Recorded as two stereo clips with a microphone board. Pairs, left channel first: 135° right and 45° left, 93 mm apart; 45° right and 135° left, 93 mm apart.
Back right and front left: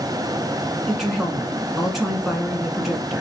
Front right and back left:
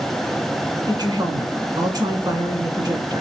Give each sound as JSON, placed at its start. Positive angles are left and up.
{"t": 0.9, "sound": "a woman speaking", "azimuth_deg": 130, "distance_m": 1.6}